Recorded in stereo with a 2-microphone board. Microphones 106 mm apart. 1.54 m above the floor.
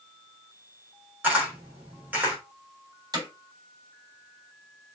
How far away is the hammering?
About 3.5 m.